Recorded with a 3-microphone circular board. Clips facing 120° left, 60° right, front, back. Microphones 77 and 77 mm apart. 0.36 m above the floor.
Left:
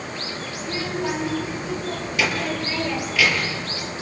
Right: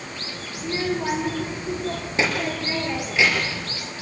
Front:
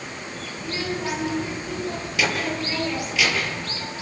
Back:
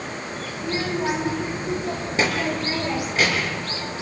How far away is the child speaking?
About 7 m.